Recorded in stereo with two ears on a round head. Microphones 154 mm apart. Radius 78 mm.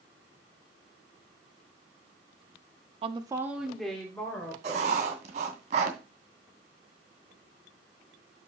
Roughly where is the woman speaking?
Right.